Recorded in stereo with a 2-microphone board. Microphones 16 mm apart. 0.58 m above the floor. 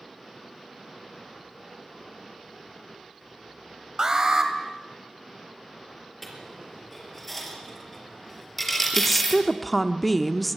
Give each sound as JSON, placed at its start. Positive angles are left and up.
{"t": 4.0, "sound": "an alarm", "side_deg": -25, "distance_m": 2.5}
{"t": 6.2, "sound": "a dropped coin", "side_deg": 5, "distance_m": 4.5}
{"t": 8.9, "sound": "a woman speaking", "side_deg": 10, "distance_m": 0.9}